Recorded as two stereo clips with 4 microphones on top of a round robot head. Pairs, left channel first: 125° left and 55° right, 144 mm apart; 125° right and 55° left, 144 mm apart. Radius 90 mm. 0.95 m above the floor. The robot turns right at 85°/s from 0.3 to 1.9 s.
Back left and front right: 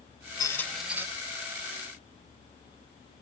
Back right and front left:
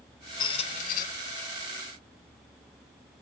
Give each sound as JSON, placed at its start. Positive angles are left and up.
{"t": 0.4, "sound": "a squeak", "azimuth_deg": 180, "distance_m": 0.8}